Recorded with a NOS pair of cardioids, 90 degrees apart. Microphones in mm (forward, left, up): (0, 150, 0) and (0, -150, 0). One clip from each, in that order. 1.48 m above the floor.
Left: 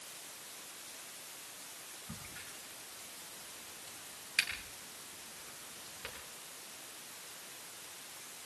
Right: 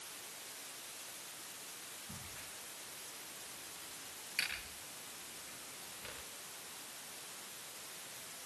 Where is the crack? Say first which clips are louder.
Left 1 dB; 50° left, 9.5 m.